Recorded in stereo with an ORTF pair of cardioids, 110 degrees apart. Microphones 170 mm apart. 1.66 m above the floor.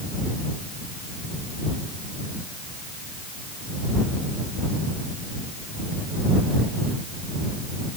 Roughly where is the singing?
I don't hear singing.